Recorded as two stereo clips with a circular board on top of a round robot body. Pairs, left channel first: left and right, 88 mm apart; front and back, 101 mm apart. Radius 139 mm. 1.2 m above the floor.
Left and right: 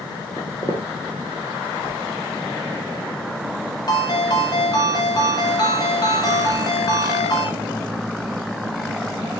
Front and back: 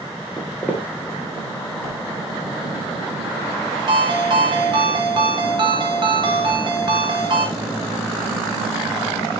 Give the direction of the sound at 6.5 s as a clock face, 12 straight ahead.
4 o'clock.